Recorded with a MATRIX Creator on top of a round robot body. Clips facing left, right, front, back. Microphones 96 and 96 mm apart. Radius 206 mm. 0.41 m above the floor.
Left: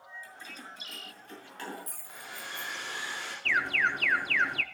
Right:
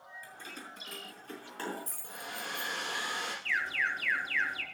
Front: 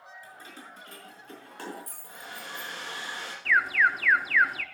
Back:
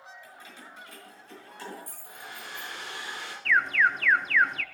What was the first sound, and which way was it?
Keys jangling, 50° right.